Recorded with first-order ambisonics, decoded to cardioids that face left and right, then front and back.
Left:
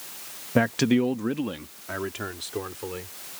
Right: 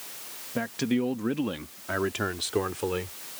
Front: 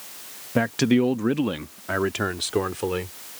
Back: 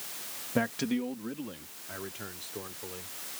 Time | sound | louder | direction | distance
0.6 | a man speaking | left 7 dB, front 10 dB | 60° left | ?